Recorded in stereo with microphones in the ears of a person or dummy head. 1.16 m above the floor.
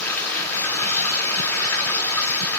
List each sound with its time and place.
0.0 s running water: 10° left (ahead or behind), 3 m